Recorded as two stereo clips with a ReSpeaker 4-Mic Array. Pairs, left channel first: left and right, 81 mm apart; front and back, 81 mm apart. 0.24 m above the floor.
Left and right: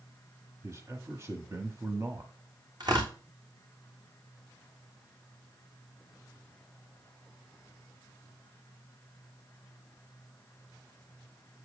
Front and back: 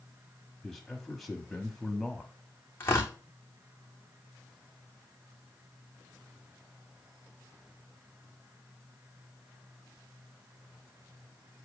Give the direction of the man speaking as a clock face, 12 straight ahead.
3 o'clock.